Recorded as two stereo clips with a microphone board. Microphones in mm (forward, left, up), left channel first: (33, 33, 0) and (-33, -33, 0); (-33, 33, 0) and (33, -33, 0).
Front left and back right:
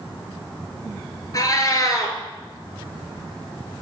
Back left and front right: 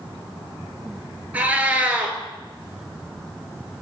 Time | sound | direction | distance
1.3 | a cat meowing | 20° left | 0.8 m